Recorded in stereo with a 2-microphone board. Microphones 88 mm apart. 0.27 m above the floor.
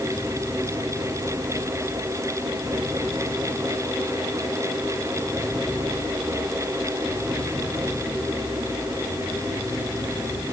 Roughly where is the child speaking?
No child speaking in this recording.